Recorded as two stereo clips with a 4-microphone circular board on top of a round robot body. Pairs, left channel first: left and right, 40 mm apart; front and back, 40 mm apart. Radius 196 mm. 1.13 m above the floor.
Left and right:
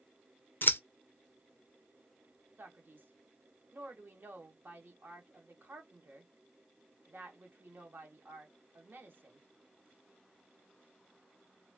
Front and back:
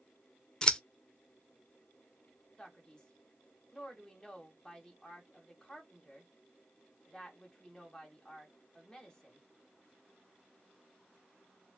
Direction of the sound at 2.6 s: 75° right.